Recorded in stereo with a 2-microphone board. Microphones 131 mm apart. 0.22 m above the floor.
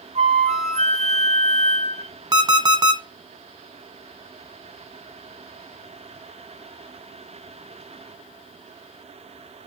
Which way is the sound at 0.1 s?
50° right (ahead or behind).